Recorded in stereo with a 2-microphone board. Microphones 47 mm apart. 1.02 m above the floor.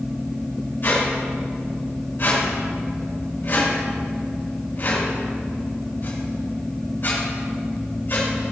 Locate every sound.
0.8 s a squeak: 50° left (ahead or behind), 3 m